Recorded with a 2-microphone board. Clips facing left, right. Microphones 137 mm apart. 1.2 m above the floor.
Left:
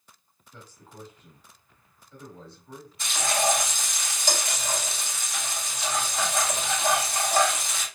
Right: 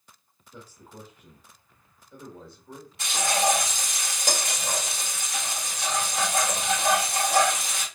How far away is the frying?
About 3 m.